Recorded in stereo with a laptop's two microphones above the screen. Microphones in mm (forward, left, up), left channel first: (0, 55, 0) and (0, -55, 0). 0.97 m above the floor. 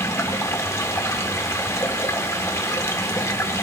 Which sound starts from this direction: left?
Running water, at 0.0 s.